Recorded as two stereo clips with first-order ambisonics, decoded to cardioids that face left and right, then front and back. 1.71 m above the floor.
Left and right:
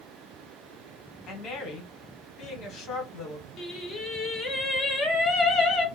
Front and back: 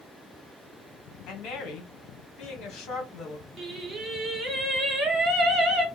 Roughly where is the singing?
Behind left.